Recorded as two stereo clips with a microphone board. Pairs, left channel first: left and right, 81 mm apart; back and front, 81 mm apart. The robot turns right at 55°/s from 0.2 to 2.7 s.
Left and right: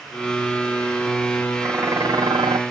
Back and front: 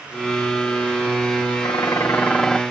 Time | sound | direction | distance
1.6 | dishes clattering | 150° right | ?